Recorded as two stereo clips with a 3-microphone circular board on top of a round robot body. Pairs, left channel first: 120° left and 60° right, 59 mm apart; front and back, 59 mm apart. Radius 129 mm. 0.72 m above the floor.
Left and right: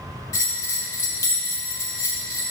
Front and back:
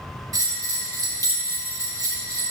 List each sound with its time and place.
0.3 s a bell: 155° left, 1.8 m